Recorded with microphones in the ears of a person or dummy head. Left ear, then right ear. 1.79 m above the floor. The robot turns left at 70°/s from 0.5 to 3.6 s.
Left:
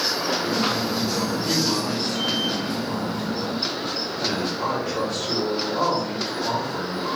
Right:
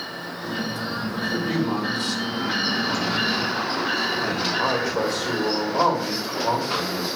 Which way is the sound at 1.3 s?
35° left.